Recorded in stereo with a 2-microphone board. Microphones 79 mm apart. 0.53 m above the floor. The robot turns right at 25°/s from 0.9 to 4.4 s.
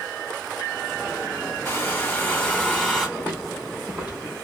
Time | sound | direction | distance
1.6 | a hair dryer | 140° left | 2.0 m
3.2 | footsteps | 25° left (ahead or behind) | 1.7 m